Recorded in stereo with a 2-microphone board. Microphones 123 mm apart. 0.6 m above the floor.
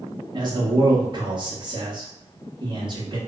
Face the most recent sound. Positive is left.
turn(degrees=-40)  # may be behind; listen again after turning